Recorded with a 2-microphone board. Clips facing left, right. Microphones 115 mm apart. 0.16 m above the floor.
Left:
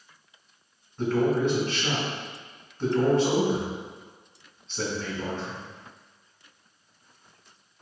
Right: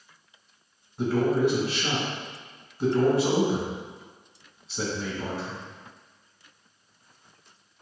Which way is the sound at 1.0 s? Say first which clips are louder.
Right 1 dB; 10° right (ahead or behind).